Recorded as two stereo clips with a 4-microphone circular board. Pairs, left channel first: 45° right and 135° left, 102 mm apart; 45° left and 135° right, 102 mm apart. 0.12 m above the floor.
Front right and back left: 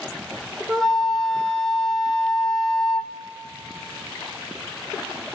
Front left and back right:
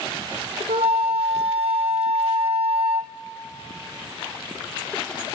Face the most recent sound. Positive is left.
turn(degrees=-130)